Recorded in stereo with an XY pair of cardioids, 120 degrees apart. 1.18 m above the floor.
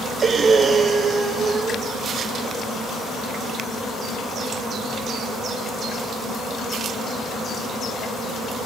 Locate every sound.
0.2 s breathing: 35° right, 1.0 m